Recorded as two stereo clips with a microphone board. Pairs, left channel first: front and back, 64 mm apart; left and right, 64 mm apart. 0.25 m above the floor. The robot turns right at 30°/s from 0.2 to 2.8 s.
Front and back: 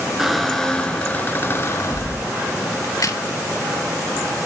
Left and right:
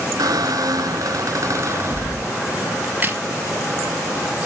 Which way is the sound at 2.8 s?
30° right.